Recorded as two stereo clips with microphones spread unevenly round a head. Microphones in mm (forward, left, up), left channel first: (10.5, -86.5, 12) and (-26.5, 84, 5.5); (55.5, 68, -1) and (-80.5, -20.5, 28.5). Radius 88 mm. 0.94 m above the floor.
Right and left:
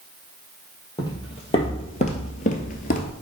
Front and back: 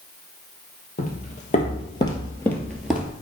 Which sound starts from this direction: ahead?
Footsteps, at 1.0 s.